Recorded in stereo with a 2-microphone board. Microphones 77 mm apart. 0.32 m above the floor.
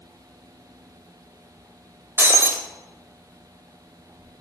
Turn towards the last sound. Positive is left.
turn(degrees=-30)  # may be behind; listen again after turning